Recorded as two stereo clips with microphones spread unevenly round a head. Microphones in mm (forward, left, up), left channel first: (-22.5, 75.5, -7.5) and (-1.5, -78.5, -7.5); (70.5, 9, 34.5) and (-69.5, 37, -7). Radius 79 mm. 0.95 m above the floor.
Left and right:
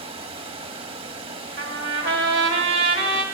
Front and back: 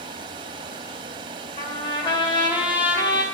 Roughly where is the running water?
Behind right.